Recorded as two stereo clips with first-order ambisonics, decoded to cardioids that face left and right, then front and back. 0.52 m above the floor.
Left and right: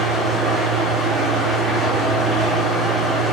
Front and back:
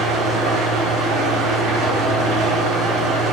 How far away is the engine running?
About 2.5 m.